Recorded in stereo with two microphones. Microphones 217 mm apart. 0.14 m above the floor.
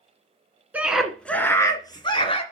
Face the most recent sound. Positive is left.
turn(degrees=25)  # may be behind; listen again after turning